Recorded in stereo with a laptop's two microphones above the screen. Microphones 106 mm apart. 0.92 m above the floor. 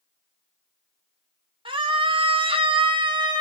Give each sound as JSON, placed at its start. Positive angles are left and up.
{"t": 1.6, "sound": "a scream", "side_deg": -55, "distance_m": 1.2}